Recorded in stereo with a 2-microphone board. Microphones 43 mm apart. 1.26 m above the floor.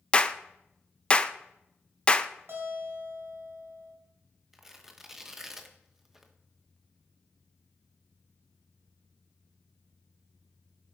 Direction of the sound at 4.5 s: 10° right (ahead or behind).